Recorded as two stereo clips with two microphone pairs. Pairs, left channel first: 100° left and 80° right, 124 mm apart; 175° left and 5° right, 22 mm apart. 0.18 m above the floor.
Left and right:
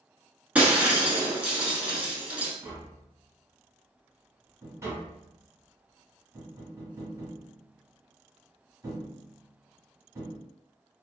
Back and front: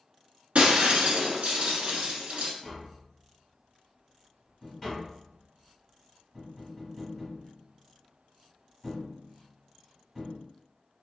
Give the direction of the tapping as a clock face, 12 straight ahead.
4 o'clock.